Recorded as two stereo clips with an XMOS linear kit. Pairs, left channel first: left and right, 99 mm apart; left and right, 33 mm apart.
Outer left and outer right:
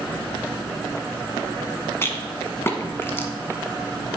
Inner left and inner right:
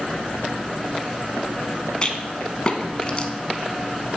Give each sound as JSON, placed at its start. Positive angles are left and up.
{"t": 2.0, "sound": "a rattle", "side_deg": 25, "distance_m": 0.8}